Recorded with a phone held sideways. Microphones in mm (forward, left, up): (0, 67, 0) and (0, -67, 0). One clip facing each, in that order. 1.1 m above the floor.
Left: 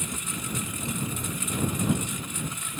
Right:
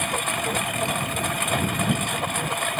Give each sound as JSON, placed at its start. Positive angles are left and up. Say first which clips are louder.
{"t": 0.0, "sound": "a lawn mower", "louder": "right 9 dB", "side_deg": -85}